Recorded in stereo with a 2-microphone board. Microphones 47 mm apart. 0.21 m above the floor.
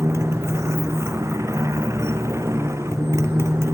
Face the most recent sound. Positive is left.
turn(degrees=-85)